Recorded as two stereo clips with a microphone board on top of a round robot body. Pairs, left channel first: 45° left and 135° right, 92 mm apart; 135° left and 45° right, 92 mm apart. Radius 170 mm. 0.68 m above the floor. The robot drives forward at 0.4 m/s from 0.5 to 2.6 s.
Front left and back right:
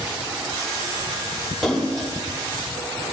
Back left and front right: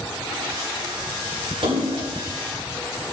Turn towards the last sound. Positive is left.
turn(degrees=-45)